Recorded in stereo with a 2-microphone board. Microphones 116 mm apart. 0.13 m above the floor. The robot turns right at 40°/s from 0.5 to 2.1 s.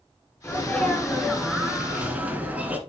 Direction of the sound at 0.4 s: 15° left (ahead or behind).